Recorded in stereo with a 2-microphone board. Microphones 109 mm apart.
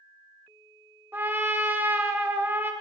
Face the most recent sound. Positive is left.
turn(degrees=-20)  # may be behind; listen again after turning